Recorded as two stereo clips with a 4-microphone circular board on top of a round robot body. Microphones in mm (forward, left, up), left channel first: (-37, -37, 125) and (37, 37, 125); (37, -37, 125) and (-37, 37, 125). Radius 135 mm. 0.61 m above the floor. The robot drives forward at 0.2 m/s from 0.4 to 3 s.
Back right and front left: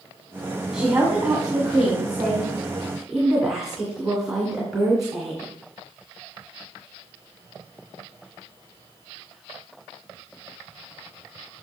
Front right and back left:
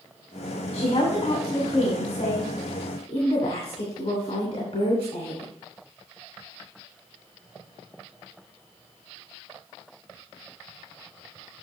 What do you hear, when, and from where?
0.7 s a woman speaking: 35° right, 2.5 m; by 5.5 s 45° right, 2.5 m